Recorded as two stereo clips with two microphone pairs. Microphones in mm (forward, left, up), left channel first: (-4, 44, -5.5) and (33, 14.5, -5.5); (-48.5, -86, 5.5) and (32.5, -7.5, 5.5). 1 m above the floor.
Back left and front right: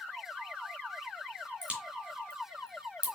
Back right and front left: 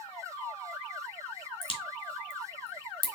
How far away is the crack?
About 2 m.